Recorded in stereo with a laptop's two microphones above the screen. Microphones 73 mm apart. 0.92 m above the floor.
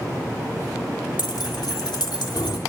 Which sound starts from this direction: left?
Keys jangling, at 1.2 s.